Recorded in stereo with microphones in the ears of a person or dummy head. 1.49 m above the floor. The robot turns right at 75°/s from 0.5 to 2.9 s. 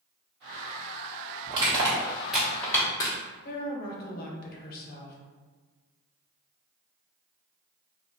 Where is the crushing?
25° right (ahead or behind), 1.0 m; by 3.1 s 15° left (ahead or behind), 1.0 m.